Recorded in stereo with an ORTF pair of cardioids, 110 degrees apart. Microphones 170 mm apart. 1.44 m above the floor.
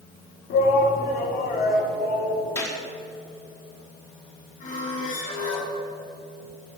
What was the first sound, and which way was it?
A shout, 65° left.